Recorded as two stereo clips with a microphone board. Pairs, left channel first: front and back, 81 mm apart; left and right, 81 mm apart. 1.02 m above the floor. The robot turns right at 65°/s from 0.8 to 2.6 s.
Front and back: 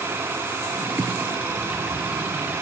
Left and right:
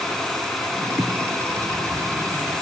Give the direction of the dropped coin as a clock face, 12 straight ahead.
I don't hear a dropped coin.